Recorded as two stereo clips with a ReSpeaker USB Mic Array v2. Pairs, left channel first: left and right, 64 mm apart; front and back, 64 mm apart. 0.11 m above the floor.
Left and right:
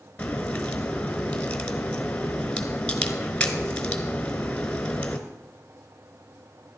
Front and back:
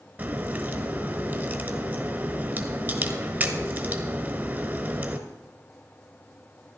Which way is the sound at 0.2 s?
150° left.